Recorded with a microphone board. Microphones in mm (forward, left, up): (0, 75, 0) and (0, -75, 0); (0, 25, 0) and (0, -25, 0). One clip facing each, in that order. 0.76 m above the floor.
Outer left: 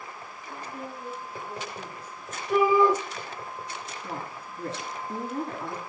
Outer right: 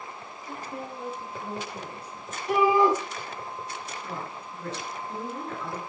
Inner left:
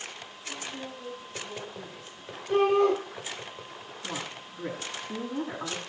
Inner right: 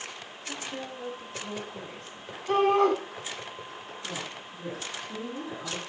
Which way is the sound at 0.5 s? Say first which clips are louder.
Outer right 2 dB, inner right 2 dB; 70° right (ahead or behind).